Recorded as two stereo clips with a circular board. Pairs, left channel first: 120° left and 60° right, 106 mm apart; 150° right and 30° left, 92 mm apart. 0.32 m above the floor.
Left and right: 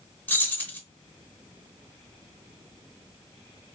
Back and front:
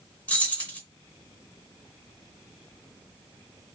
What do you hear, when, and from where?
0.3 s keys jangling: 160° left, 0.6 m